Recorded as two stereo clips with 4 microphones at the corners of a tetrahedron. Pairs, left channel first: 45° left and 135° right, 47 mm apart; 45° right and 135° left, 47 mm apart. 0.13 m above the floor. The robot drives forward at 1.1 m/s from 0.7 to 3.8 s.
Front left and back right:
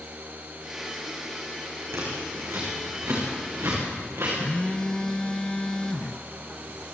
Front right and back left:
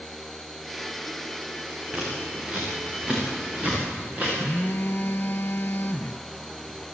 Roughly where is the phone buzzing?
Ahead.